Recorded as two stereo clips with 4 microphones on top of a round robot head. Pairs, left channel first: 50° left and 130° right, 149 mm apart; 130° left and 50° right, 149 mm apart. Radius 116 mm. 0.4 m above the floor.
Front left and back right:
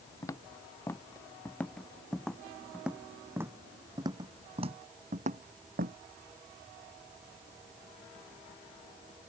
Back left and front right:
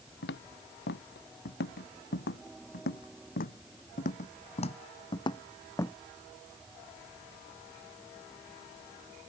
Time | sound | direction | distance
0.2 | footsteps | 125° left | ?